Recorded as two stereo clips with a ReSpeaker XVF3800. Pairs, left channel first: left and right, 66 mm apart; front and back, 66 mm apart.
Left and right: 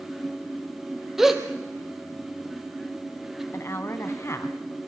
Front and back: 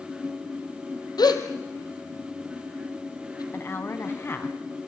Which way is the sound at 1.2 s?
5° right.